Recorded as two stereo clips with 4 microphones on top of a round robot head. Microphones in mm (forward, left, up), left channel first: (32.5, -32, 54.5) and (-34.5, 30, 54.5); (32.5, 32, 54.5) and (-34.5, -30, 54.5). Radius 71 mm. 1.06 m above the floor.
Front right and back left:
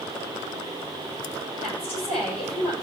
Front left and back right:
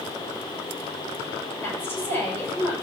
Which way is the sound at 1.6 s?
25° right.